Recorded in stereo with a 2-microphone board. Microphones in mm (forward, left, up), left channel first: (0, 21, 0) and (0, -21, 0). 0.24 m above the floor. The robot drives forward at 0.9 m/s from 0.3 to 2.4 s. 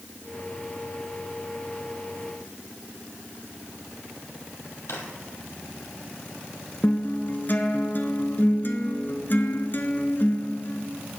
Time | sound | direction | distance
4.9 | a drawer | 75° left (ahead or behind) | 2.5 m
6.8 | a guitar | 50° left (ahead or behind) | 1.3 m